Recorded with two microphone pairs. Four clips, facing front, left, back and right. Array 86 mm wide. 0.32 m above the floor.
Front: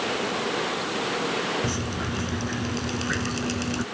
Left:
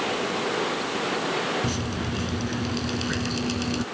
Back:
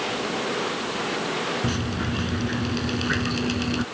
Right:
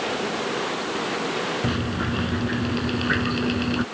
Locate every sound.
1.6 s dripping: 95° right